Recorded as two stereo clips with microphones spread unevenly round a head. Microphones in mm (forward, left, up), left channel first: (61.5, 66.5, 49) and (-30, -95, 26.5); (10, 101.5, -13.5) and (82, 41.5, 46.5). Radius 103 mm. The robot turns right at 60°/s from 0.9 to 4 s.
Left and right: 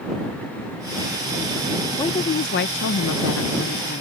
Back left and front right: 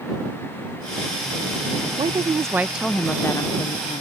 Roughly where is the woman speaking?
Ahead.